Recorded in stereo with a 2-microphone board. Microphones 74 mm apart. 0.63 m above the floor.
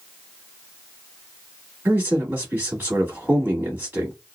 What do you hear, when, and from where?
1.9 s a man speaking: 25° right (ahead or behind), 1.4 m